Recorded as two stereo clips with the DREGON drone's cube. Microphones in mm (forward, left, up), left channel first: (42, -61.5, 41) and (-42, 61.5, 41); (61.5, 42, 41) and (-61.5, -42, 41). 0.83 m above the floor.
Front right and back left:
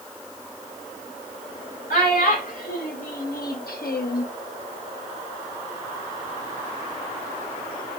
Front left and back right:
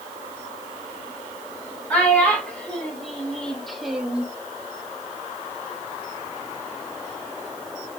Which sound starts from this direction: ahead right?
A child speaking, at 1.9 s.